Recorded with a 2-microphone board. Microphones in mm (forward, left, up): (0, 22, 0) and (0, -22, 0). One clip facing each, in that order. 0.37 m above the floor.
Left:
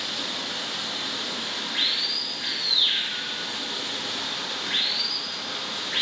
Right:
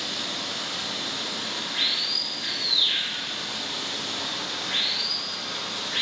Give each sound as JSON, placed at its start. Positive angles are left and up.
{"t": 0.0, "sound": "running water", "side_deg": 15, "distance_m": 1.8}